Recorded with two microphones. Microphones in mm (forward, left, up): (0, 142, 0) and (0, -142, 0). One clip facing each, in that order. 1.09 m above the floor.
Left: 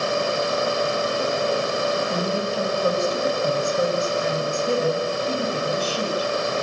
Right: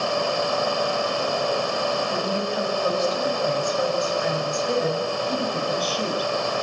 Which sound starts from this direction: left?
A woman speaking, at 2.1 s.